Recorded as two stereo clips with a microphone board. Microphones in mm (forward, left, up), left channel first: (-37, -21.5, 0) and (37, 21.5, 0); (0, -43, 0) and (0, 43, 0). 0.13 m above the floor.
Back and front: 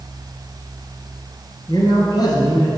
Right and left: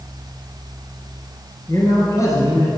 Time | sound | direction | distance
1.7 | a man speaking | 130° right | 2.0 m